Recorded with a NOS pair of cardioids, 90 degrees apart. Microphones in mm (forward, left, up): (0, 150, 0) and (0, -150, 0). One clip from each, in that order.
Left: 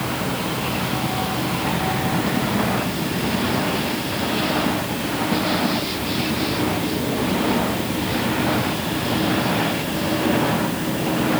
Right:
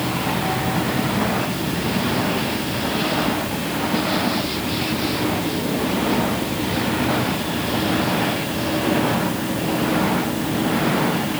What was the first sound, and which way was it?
Only background noise.